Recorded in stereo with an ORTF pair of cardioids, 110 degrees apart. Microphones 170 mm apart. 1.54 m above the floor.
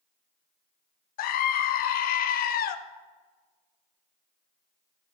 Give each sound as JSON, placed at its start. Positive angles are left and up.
{"t": 1.2, "sound": "a scream", "azimuth_deg": 60, "distance_m": 0.6}